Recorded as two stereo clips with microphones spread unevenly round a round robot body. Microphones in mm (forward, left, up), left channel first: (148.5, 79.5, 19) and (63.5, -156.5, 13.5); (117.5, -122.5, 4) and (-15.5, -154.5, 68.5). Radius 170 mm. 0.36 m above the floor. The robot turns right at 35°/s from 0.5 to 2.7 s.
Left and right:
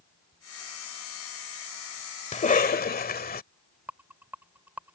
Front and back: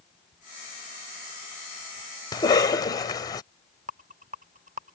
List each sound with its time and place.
2.3 s a cough: 15° left; by 3.4 s 25° left
3.9 s a rattle: 175° left